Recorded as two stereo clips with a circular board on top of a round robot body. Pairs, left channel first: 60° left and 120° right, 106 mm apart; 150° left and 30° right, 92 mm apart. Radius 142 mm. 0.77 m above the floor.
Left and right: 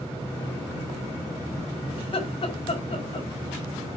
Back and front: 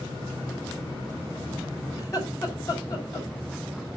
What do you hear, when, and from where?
2.0 s laughter: 100° left, 5 m